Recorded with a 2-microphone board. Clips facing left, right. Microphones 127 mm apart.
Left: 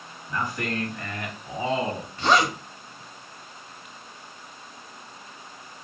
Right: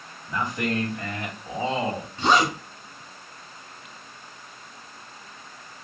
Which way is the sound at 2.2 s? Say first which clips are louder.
Even; 20° right (ahead or behind).